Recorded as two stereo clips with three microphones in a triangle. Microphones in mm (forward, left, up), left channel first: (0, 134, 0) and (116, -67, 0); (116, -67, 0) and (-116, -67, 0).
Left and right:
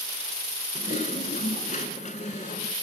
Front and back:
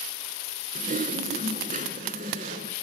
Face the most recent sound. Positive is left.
turn(degrees=155)